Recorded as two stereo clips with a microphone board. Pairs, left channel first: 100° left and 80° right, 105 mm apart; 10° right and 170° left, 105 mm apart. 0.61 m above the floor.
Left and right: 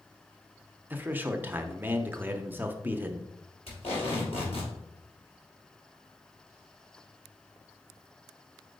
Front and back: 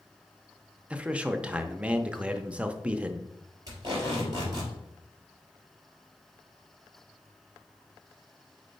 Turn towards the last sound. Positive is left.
turn(degrees=120)